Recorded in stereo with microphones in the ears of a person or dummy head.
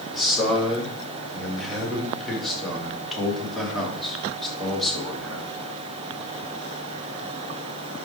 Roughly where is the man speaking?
Centre.